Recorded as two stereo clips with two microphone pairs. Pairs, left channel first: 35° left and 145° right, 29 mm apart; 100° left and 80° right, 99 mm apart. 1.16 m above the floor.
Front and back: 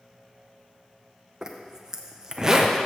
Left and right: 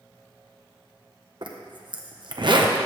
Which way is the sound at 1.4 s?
80° right.